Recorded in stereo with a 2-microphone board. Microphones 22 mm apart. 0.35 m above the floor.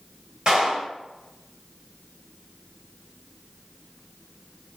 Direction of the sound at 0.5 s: 40° right (ahead or behind).